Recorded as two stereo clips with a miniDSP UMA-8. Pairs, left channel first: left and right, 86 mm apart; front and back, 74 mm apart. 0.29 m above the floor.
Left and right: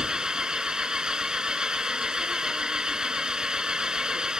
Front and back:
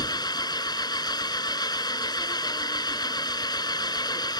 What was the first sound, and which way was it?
An engine running, 10° right.